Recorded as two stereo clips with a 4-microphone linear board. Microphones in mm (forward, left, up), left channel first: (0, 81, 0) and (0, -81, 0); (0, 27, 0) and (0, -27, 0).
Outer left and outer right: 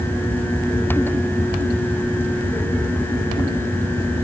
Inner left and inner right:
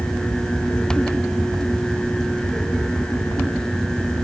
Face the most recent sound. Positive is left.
No sound to turn to.